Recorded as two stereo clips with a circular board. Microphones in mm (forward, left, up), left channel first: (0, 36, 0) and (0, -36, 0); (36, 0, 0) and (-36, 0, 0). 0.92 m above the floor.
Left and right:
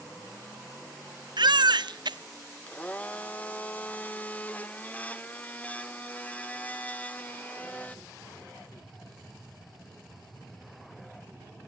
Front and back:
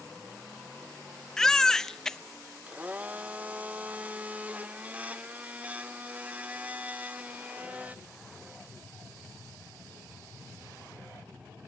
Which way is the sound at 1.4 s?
85° right.